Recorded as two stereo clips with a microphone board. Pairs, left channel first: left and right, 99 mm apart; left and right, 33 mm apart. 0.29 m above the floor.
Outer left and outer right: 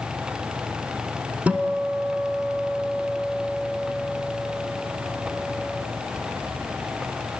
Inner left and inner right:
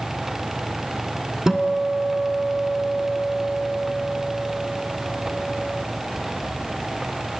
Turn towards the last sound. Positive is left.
turn(degrees=-15)  # may be behind; listen again after turning